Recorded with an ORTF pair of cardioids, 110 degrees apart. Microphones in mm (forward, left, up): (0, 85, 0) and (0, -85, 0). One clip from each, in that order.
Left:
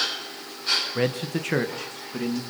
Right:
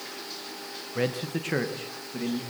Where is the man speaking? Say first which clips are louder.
Left 3 dB; 15° left, 1.3 m.